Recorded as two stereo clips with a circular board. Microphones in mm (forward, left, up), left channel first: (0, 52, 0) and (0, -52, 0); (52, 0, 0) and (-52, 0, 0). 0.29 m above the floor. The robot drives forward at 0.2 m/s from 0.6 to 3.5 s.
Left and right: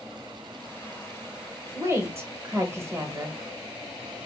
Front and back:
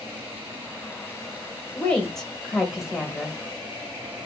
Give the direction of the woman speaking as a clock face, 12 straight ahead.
2 o'clock.